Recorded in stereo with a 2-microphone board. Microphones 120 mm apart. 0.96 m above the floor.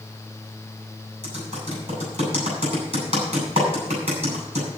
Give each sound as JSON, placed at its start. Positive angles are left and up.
{"t": 1.2, "sound": "typing on a keyboard", "side_deg": -60, "distance_m": 7.0}